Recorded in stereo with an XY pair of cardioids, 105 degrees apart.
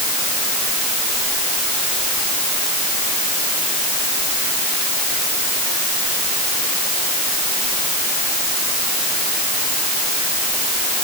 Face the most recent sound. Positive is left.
No sound to turn to.